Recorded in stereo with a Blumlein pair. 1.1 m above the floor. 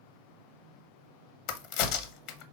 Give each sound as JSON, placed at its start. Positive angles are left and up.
{"t": 1.5, "sound": "a crack", "azimuth_deg": 45, "distance_m": 0.7}